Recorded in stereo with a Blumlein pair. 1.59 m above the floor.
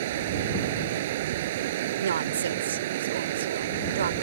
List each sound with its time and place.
0.0 s running water: 55° right
2.0 s a woman speaking: 65° right